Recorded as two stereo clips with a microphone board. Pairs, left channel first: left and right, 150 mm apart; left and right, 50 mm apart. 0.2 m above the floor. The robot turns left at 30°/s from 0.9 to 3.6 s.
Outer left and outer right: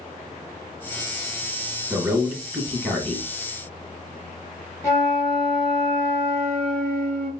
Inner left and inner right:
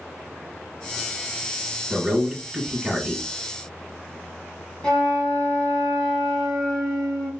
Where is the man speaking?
140° right, 1.2 m; by 3.3 s straight behind, 1.2 m.